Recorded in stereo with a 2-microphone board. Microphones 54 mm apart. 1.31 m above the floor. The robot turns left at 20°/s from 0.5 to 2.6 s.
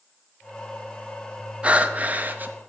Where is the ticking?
I don't hear ticking.